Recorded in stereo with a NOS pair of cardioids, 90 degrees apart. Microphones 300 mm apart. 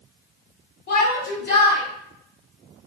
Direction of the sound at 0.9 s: 60° left.